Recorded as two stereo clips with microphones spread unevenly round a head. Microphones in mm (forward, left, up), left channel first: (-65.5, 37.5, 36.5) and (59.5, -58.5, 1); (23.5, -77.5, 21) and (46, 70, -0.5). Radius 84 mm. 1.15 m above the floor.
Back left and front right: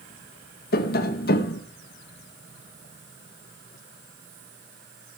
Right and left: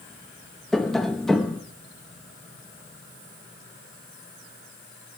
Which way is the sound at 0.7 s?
175° left.